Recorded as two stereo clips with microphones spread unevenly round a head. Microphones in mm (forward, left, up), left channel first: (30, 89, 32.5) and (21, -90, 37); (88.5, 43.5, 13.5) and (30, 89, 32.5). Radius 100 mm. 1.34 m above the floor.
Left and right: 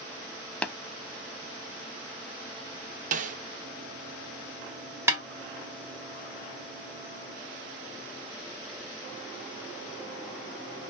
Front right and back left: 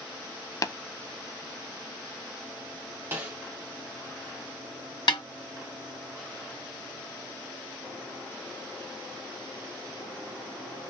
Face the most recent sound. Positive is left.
turn(degrees=-20)